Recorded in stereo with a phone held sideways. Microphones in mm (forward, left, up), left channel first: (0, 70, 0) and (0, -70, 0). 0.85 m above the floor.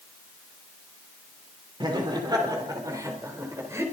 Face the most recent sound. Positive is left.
turn(degrees=-20)  # may be behind; listen again after turning